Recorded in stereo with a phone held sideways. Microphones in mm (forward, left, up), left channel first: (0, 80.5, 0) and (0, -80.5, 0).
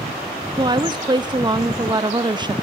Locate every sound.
0.6 s a woman speaking: 25° right (ahead or behind), 0.8 m